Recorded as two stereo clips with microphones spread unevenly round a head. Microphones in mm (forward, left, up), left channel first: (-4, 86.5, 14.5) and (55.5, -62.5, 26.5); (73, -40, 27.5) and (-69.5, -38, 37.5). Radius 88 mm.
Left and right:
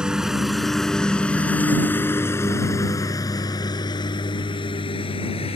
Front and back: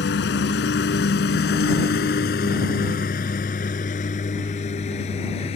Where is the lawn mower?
15° left; by 5.6 s 55° left.